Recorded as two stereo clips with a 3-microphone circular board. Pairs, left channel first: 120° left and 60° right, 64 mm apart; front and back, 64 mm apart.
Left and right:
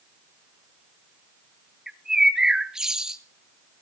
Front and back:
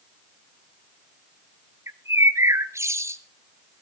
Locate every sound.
1.9 s a bird: 140° right, 1.0 m